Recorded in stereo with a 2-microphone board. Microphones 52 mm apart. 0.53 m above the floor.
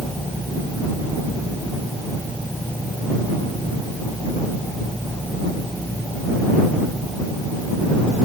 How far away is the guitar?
I don't hear a guitar.